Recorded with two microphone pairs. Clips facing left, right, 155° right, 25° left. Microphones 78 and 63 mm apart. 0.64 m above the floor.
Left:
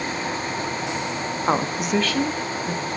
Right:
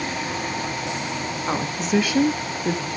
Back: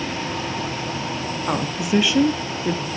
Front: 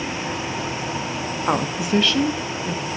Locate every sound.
1.5 s a woman speaking: 80° left, 0.7 m; by 2.9 s 115° right, 1.1 m